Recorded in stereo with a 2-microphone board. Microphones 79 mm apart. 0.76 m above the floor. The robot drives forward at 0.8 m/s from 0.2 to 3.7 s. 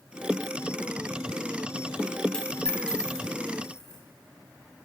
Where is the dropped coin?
10° left (ahead or behind), 2 m.